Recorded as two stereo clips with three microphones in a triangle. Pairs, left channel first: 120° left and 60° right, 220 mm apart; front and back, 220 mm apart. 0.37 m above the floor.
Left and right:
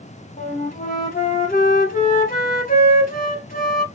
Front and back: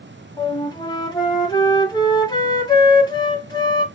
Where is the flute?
70° left, 1.3 m.